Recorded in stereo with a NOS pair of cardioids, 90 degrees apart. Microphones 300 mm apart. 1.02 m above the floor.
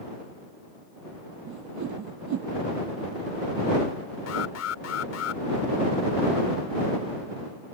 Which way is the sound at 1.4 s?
70° right.